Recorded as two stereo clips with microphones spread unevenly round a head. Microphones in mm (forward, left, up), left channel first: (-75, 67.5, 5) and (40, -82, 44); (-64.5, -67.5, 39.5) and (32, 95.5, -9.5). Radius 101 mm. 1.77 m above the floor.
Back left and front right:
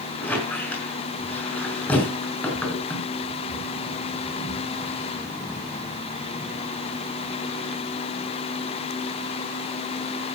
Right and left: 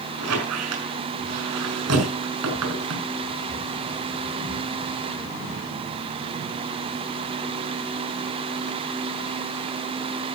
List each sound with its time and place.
0.2 s a squeak: 40° left, 5.5 m